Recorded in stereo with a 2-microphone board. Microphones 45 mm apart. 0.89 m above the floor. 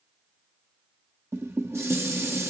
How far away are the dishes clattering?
About 0.6 m.